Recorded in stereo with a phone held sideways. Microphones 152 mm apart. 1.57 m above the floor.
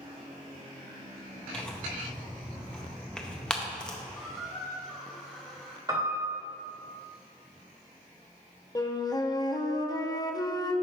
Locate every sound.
1.5 s tearing paper: 5° left (ahead or behind), 0.7 m
4.2 s a squeak: centre (ahead or behind), 1.2 m
5.9 s a piano: 25° right (ahead or behind), 1.8 m
8.8 s a flute: 25° left (ahead or behind), 0.6 m